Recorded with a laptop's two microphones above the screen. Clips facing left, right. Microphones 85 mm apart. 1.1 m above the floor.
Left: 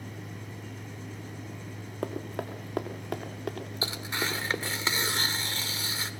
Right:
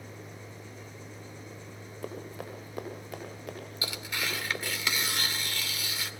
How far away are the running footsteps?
About 4.5 m.